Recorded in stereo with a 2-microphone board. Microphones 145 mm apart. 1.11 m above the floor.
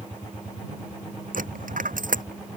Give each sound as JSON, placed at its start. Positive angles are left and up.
{"t": 1.3, "sound": "a dropped coin", "side_deg": -80}